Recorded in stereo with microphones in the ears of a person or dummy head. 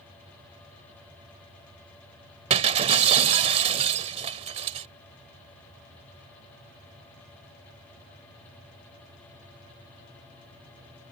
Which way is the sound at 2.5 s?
35° right (ahead or behind).